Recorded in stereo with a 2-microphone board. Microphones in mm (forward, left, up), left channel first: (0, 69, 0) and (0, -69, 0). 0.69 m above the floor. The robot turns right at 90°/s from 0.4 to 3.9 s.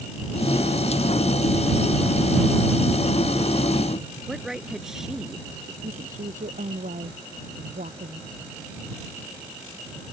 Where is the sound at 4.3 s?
5° right (ahead or behind).